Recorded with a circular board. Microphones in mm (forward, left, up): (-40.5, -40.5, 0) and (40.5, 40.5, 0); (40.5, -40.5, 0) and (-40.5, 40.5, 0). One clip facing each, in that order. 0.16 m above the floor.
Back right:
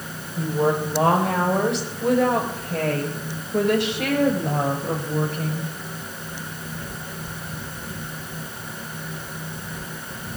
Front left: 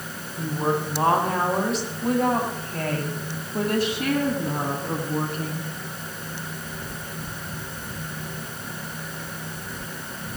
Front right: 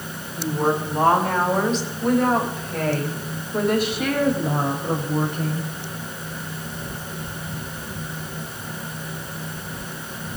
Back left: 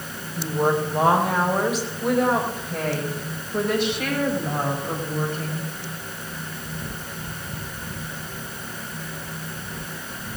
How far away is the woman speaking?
About 6.5 m.